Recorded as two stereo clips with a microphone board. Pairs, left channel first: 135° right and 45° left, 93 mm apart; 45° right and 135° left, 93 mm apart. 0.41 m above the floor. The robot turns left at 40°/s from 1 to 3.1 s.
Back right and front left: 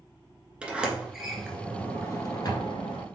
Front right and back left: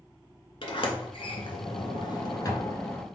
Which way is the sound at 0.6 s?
35° right.